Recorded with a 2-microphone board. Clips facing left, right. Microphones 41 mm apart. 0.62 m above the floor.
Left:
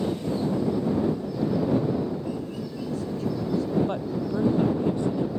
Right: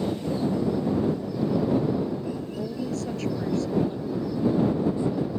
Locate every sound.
2.6 s a woman speaking: 85° right; by 3.8 s 75° right (ahead or behind)
3.9 s a woman speaking: 60° left (ahead or behind)